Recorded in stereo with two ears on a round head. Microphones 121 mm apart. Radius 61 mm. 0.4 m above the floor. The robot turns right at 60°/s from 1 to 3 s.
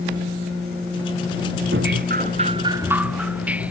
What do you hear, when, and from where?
1.7 s dripping: 90° right; by 3.7 s 10° right